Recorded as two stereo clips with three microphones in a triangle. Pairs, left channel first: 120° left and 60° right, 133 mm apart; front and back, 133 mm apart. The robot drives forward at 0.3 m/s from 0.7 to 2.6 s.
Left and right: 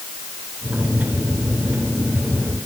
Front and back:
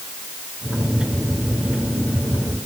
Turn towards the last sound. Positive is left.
No sound to turn to.